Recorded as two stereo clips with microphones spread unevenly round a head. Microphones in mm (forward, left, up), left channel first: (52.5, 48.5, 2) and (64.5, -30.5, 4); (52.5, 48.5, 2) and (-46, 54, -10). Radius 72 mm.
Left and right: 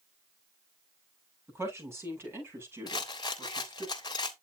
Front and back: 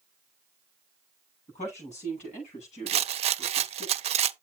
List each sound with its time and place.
1.5 s a woman speaking: 25° right, 9.5 m
2.9 s a rattle: 160° left, 0.6 m